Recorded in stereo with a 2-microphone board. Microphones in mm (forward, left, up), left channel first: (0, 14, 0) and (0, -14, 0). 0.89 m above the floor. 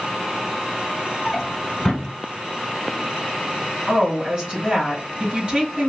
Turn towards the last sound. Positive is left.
turn(degrees=-35)  # may be behind; listen again after turning